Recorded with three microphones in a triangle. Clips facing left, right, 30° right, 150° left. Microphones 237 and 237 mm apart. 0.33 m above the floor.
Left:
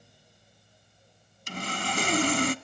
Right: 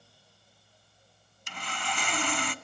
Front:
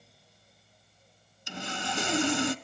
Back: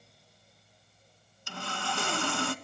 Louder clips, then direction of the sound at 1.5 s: Left 6 dB, front 2 dB; 40° left.